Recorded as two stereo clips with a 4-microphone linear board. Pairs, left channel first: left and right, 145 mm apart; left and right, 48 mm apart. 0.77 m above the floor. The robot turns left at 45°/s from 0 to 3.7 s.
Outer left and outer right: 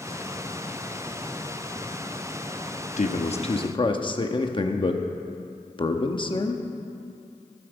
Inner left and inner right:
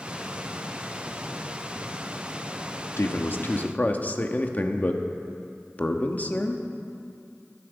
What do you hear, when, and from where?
3.0 s a man speaking: 75° left, 1.0 m; by 6.6 s 40° left, 1.0 m